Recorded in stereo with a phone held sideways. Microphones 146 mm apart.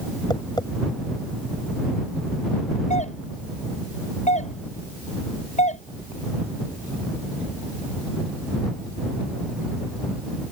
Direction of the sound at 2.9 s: 55° left (ahead or behind).